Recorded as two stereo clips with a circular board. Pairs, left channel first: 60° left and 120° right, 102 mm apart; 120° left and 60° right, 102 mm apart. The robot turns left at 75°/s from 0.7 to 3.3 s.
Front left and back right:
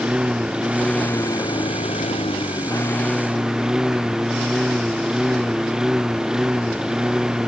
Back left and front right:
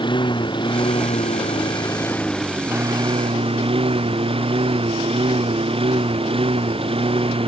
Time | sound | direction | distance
0.0 | a lawn mower | 160° left | ?